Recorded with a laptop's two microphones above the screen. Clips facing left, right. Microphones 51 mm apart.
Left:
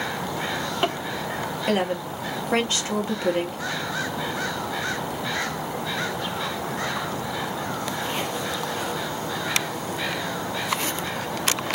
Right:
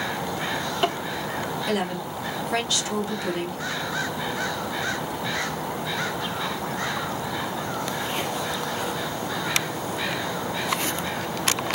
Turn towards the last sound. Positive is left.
turn(degrees=35)  # may be behind; listen again after turning